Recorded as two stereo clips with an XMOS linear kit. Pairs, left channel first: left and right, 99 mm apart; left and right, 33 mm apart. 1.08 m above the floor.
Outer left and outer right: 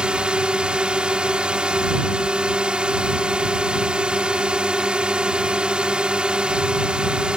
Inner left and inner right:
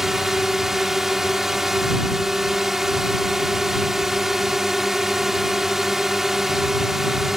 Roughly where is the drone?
Centre.